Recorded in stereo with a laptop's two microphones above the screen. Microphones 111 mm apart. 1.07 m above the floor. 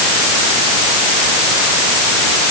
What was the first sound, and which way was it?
Only background noise.